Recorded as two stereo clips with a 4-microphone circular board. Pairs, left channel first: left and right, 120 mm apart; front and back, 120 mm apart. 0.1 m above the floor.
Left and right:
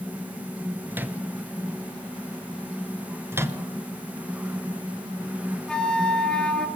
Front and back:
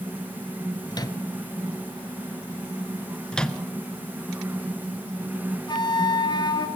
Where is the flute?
10° left, 1.6 m.